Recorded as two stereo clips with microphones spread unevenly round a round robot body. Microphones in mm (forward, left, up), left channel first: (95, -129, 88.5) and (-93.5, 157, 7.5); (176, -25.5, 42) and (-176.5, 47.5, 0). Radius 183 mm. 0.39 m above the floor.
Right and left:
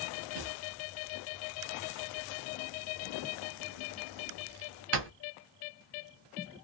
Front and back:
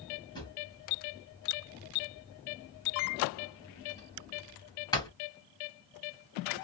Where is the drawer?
70° left, 1.3 m.